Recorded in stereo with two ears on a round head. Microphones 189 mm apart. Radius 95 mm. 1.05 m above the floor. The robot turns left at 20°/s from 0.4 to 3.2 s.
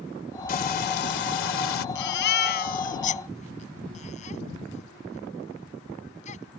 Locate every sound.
0.5 s frying: 45° left (ahead or behind); by 1.9 s 70° left (ahead or behind)
1.9 s a baby crying: 60° left (ahead or behind); by 6.6 s 35° left (ahead or behind)